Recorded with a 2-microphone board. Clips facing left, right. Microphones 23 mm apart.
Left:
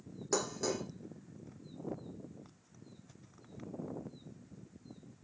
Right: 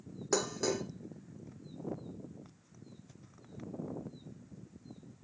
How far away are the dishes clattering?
About 1.9 m.